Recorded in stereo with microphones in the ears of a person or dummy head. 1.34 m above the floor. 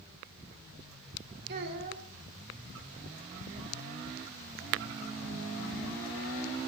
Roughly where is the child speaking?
Right.